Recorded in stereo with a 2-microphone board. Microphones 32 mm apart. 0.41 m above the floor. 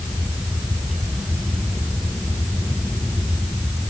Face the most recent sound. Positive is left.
No sound to turn to.